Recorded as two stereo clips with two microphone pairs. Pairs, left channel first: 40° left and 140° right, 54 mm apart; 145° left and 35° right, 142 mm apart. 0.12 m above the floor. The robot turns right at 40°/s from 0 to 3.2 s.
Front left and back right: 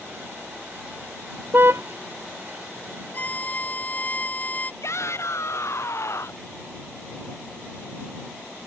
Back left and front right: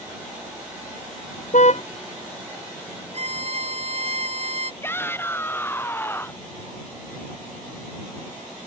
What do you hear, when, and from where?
1.5 s a car horn: 175° left; by 1.8 s 175° right
3.1 s a violin: 10° right; by 4.7 s 5° right
4.8 s a shout: 70° left